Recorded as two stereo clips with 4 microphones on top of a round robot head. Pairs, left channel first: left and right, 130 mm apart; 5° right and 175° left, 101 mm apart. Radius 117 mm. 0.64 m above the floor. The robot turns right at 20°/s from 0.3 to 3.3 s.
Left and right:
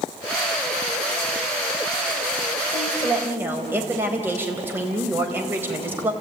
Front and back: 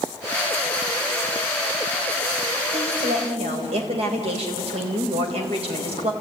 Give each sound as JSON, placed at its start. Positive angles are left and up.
{"t": 2.7, "sound": "a woman speaking", "azimuth_deg": -175, "distance_m": 4.0}